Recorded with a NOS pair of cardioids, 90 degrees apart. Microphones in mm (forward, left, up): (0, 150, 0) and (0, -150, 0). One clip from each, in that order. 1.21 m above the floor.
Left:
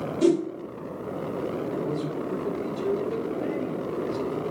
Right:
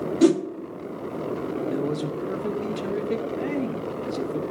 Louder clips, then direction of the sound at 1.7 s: Right 2 dB; 60° right.